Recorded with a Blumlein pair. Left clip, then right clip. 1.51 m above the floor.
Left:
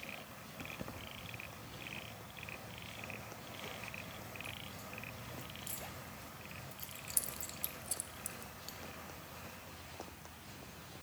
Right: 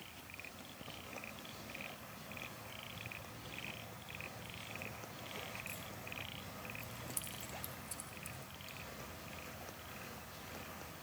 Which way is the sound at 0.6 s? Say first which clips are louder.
Left 4 dB; 65° left.